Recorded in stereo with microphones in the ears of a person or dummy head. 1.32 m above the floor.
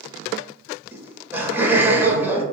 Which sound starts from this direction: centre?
Laughter, at 0.9 s.